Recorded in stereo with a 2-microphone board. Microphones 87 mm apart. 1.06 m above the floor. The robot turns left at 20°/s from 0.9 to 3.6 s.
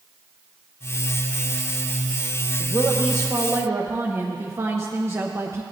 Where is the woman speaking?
35° right (ahead or behind), 0.9 m.